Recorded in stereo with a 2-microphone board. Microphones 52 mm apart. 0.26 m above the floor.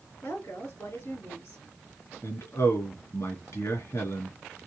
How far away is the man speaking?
About 3 m.